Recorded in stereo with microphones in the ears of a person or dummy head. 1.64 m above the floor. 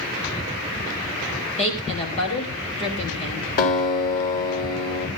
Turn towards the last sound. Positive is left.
turn(degrees=45)  # may be behind; listen again after turning